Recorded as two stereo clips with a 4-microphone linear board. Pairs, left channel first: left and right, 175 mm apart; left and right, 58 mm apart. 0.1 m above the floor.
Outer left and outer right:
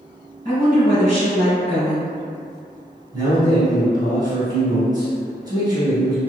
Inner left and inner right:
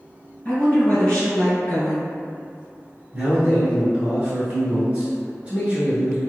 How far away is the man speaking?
About 1.1 m.